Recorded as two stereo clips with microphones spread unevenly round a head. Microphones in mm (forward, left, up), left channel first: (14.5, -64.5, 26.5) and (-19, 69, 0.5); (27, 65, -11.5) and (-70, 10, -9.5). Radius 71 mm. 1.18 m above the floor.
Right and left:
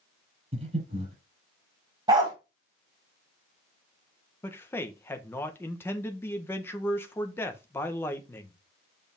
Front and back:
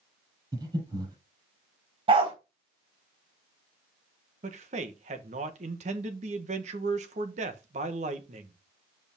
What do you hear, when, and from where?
0.5 s breathing: 155° left, 6 m
2.1 s a dog barking: 170° left, 3 m
4.4 s a man speaking: 155° right, 1.3 m